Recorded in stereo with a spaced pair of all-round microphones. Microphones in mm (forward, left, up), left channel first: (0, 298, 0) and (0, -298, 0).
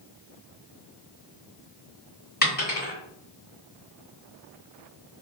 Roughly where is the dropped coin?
Centre.